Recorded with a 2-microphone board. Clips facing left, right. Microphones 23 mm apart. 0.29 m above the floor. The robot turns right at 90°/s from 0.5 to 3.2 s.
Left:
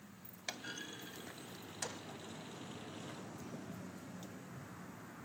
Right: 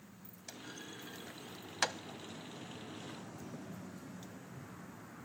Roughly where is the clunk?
Left.